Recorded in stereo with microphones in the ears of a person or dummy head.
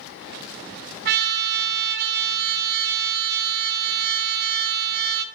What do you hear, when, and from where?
1.1 s a trumpet: 50° right (ahead or behind), 0.6 m